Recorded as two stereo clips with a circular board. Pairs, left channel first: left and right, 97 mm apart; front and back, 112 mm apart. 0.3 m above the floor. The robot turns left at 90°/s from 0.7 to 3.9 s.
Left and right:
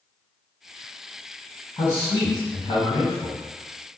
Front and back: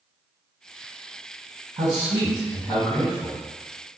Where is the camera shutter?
I don't hear a camera shutter.